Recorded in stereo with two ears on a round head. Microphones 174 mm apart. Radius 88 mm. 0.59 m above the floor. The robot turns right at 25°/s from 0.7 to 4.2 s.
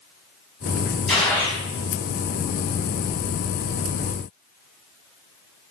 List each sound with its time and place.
1.1 s a gunshot: 5° left (ahead or behind), 5.5 m; by 1.6 s 15° left (ahead or behind), 5.5 m